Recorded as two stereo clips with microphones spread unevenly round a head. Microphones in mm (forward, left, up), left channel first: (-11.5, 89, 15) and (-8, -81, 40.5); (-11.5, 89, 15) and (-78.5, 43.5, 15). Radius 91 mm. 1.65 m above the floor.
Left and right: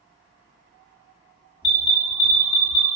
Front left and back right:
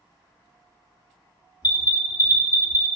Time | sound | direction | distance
1.6 | an alarm | 70° left | 1.2 m